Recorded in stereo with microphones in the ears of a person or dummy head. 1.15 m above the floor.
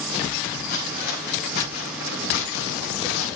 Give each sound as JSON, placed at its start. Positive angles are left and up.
{"t": 0.7, "sound": "footsteps", "side_deg": 55, "distance_m": 4.0}